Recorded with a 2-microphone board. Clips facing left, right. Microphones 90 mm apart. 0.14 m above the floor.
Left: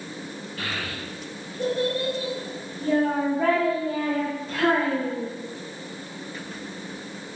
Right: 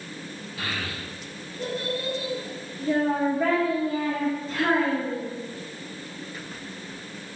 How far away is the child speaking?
About 1.4 m.